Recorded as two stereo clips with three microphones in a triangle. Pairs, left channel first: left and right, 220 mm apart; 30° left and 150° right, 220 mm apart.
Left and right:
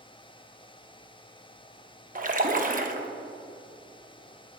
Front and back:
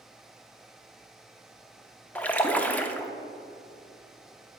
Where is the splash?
50° right, 0.5 m.